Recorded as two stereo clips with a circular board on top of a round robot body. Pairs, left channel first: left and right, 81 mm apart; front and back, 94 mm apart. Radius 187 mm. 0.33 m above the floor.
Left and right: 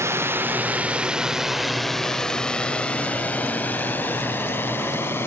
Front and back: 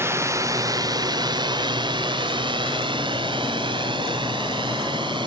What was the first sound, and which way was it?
A drone, 130° right.